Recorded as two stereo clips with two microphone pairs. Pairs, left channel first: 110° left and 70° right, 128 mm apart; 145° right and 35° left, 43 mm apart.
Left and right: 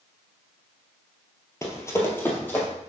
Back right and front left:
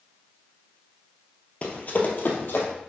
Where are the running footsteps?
170° left, 1.5 m; by 2.7 s 175° right, 2 m.